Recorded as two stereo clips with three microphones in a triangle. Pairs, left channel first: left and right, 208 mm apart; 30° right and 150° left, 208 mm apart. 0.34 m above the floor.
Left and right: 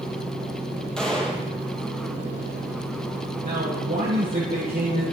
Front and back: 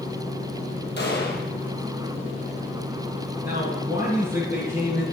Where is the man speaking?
135° right, 6 m.